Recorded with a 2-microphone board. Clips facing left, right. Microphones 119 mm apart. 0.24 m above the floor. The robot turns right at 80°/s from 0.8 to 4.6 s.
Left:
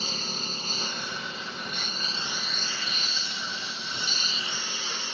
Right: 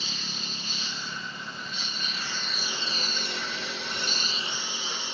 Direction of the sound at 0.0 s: 45° left.